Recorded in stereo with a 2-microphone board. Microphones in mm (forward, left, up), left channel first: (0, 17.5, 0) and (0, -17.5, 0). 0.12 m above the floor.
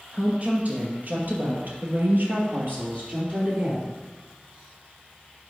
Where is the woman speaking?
40° right (ahead or behind), 3 m; by 4.0 s 35° right (ahead or behind), 3 m.